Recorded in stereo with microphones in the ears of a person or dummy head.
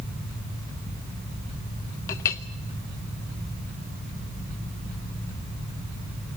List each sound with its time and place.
2.1 s a clink: 15° left (ahead or behind), 0.7 m